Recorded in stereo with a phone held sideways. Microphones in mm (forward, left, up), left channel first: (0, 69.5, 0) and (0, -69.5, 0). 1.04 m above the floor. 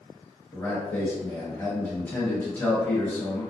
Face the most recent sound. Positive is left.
turn(degrees=15)  # may be behind; listen again after turning